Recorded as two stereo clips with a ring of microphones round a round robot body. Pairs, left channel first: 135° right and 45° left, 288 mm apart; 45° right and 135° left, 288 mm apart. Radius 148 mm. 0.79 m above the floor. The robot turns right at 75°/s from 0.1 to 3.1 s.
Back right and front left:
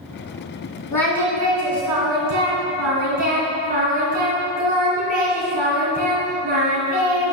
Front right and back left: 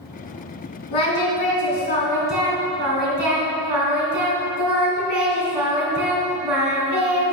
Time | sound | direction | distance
0.9 | singing | 55° right | 2.5 m